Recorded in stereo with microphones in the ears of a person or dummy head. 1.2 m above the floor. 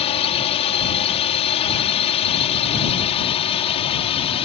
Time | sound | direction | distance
0.0 | a drone | 30° left (ahead or behind) | ?